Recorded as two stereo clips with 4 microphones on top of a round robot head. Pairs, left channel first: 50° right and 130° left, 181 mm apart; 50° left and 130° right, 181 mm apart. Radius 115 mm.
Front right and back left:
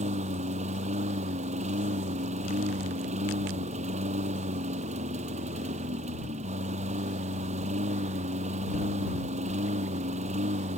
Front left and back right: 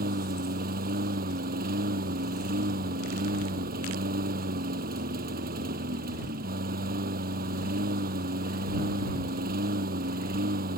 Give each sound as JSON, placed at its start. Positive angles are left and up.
{"t": 0.0, "sound": "a lawn mower", "azimuth_deg": -175}